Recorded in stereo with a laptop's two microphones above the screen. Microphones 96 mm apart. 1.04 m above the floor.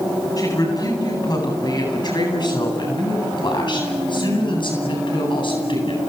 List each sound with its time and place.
0.4 s a woman speaking: 40° left (ahead or behind), 9 m; by 6.0 s 60° left (ahead or behind), 9.5 m